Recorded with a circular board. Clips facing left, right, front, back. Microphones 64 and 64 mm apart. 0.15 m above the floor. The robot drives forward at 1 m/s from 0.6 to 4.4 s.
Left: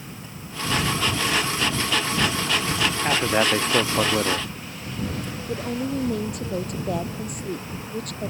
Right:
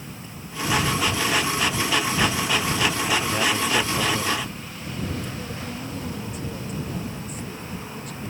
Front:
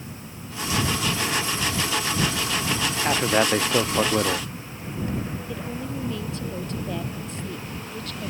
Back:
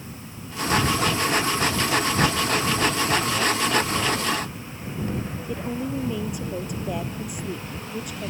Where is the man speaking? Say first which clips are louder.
Left 2 dB, front 2 dB; 35° left; by 4.5 s 40° left.